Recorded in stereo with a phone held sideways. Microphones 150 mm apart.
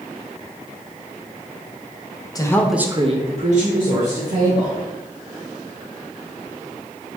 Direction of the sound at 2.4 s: 25° left (ahead or behind).